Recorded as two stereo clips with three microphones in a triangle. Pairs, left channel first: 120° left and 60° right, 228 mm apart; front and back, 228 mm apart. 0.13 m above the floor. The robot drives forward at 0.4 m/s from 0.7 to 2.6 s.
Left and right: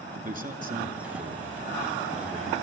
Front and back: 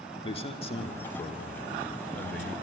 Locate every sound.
0.2 s a man speaking: 45° right, 2.0 m; by 2.5 s 85° right, 1.8 m